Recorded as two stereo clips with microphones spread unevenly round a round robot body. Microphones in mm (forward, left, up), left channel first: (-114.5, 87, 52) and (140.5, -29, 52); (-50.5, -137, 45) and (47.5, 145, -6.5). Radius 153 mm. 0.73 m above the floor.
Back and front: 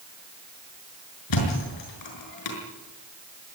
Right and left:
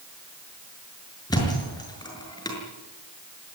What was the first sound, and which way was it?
A thud, 175° left.